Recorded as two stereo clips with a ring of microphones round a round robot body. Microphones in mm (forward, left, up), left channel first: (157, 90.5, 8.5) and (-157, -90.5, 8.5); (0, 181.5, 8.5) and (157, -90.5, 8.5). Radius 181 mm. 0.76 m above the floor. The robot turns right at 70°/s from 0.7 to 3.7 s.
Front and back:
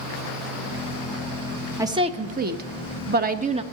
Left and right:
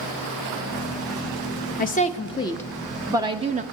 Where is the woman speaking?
135° left, 0.6 m; by 3.6 s 95° right, 0.6 m.